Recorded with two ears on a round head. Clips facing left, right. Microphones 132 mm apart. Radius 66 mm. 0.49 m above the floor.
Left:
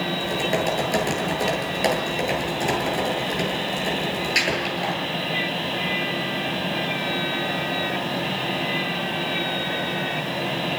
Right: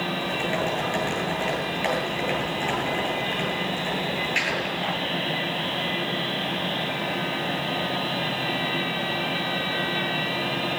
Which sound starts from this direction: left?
Typing on a keyboard, at 0.2 s.